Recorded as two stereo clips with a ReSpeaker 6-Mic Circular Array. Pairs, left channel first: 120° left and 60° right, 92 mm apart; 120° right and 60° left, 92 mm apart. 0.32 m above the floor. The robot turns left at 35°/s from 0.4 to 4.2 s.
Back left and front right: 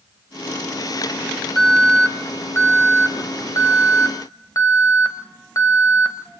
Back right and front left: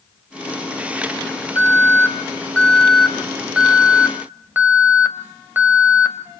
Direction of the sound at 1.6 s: 155° right.